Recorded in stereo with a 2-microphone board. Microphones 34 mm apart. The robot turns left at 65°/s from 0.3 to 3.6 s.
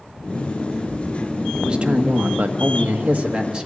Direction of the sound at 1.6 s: 20° right.